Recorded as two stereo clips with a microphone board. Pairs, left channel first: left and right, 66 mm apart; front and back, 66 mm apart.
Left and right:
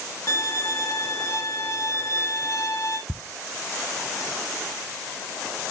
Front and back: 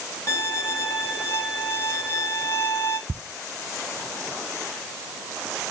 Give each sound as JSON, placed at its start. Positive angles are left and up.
{"t": 0.3, "sound": "a violin", "azimuth_deg": 50, "distance_m": 1.8}
{"t": 3.1, "sound": "ticking", "azimuth_deg": 165, "distance_m": 0.5}